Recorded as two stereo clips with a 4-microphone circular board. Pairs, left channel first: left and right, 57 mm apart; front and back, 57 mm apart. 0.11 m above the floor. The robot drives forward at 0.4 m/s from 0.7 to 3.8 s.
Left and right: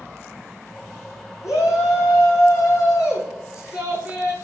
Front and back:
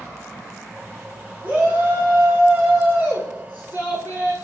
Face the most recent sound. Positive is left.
turn(degrees=125)